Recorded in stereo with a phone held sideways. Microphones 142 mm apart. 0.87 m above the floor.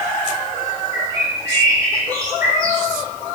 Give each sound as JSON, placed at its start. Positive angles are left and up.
{"t": 0.9, "sound": "a bird", "side_deg": -25, "distance_m": 8.5}